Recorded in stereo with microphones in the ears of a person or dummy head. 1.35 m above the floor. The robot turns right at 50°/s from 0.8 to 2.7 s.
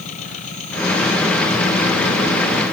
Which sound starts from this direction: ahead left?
An engine running, at 0.0 s.